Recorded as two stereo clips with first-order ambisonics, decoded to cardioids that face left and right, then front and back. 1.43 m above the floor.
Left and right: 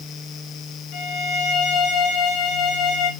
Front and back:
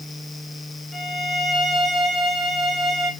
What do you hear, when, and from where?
0.9 s a violin: 95° left, 0.9 m